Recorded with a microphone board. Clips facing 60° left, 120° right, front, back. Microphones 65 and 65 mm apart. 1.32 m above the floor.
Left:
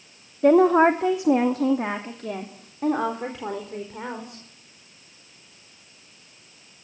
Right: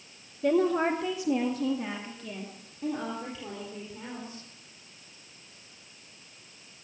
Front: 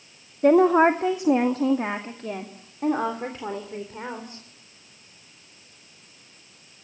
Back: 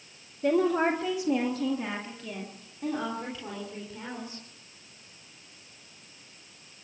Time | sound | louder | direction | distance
0.4 | a woman speaking | left 9 dB, front 8 dB | 40° left | 1.1 m